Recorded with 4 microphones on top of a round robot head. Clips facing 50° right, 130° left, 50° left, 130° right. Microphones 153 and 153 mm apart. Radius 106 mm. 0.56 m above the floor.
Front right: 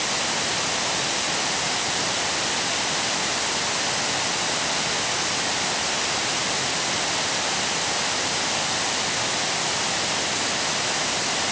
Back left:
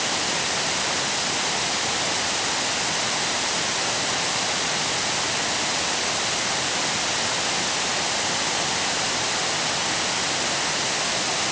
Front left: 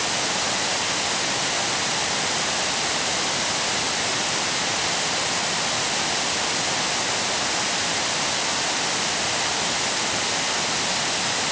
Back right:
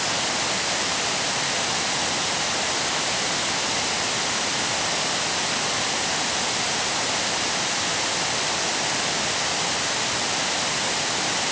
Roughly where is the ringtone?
I don't hear a ringtone.